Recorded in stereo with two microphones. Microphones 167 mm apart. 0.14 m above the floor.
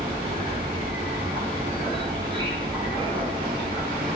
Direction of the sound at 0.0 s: 30° right (ahead or behind).